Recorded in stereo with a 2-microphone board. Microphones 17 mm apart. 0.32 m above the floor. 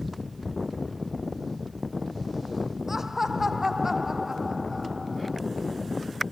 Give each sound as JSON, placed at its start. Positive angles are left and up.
{"t": 2.9, "sound": "laughter", "side_deg": -20}